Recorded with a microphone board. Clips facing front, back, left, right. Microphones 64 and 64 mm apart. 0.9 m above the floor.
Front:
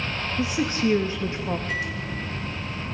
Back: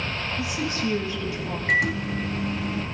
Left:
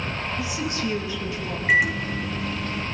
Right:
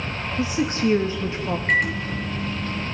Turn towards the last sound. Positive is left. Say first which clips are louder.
# back 6 dB, left 3 dB
turn(degrees=175)